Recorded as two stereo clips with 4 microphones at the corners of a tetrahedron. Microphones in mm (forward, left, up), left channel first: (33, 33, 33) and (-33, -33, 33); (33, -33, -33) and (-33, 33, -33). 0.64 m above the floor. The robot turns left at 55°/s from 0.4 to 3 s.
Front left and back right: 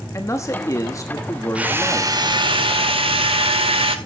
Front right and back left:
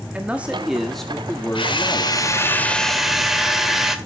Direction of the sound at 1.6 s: 60° right.